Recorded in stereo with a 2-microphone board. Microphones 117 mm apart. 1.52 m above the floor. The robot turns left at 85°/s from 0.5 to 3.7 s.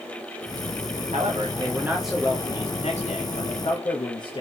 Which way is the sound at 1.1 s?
100° right.